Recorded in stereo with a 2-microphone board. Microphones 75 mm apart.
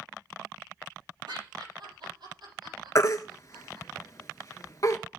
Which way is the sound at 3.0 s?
45° left (ahead or behind).